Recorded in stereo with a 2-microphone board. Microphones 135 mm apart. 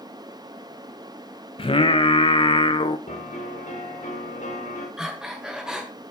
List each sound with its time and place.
1.6 s singing: 40° left (ahead or behind), 0.6 m
3.1 s a piano: 70° left (ahead or behind), 3 m
5.0 s breathing: 5° right (ahead or behind), 1.6 m